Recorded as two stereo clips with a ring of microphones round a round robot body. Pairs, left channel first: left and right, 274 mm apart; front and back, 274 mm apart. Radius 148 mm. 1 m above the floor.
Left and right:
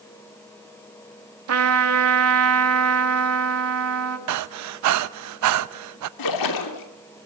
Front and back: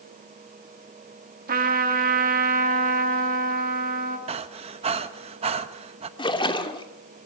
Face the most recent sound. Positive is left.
turn(degrees=70)